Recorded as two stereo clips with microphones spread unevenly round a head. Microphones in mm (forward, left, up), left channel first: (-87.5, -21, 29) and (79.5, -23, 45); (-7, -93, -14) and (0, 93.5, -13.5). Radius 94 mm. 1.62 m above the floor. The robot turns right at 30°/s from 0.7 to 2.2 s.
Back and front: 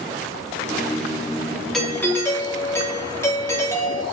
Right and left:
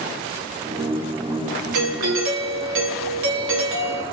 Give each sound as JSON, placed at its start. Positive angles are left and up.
{"t": 1.7, "sound": "a doorbell", "azimuth_deg": 95, "distance_m": 1.1}